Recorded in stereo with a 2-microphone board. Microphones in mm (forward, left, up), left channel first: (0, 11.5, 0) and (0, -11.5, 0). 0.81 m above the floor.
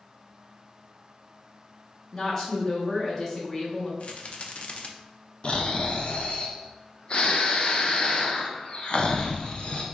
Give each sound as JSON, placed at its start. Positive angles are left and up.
{"t": 2.1, "sound": "a woman speaking", "side_deg": 20, "distance_m": 1.0}
{"t": 4.0, "sound": "a rattle", "side_deg": 50, "distance_m": 0.5}
{"t": 5.4, "sound": "snoring", "side_deg": 50, "distance_m": 0.5}